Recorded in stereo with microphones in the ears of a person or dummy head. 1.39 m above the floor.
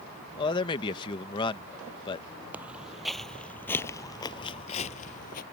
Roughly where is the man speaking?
Left.